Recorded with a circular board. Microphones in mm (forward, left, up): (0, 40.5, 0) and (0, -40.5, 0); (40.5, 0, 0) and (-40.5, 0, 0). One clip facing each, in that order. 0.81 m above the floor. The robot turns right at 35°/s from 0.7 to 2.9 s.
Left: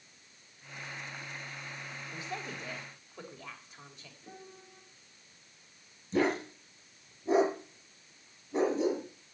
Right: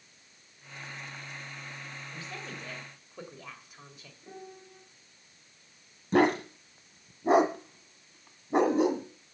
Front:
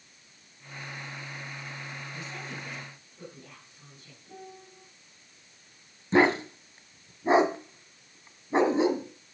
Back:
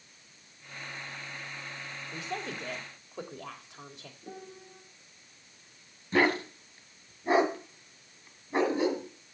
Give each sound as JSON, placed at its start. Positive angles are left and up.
{"t": 2.1, "sound": "a woman speaking", "azimuth_deg": 155, "distance_m": 3.5}
{"t": 4.2, "sound": "a piano", "azimuth_deg": -175, "distance_m": 2.5}
{"t": 6.1, "sound": "a dog barking", "azimuth_deg": -70, "distance_m": 1.6}